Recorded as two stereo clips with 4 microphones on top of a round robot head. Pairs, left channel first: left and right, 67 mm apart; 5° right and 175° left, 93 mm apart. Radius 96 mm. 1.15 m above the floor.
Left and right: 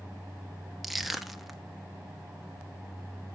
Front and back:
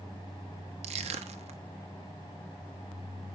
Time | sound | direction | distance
0.8 | crushing | straight behind | 1.1 m